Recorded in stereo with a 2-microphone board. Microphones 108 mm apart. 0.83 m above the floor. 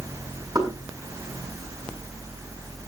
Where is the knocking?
35° right (ahead or behind), 6.5 m.